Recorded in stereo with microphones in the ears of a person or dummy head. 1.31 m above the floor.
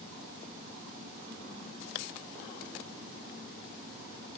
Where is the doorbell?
I don't hear a doorbell.